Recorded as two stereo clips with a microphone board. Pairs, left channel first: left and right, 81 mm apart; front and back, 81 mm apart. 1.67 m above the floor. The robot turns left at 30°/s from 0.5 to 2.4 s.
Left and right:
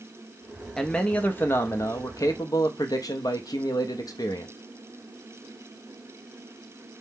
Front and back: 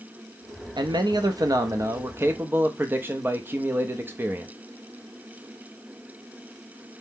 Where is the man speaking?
170° left, 0.5 m; by 4.5 s 120° left, 0.5 m.